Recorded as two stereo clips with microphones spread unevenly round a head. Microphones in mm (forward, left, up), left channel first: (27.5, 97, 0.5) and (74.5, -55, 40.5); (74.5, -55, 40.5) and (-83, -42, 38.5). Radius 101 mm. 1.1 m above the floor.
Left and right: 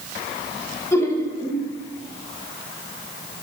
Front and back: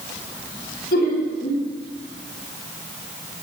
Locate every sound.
0.9 s laughter: 35° left, 2.5 m